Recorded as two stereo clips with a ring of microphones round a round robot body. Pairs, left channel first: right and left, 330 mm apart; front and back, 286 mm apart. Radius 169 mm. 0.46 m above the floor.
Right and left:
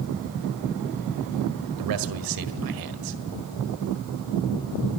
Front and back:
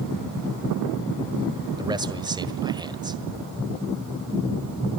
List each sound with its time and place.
1.8 s a man speaking: 105° left, 1.8 m